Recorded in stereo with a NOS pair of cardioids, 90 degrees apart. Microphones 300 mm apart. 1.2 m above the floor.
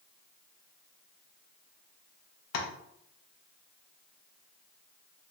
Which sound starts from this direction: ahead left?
Tapping, at 2.5 s.